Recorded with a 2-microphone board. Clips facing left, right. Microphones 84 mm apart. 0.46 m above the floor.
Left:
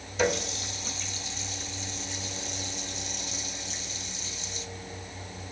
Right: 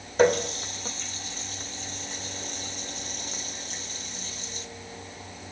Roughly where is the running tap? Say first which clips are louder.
Right 6 dB; right.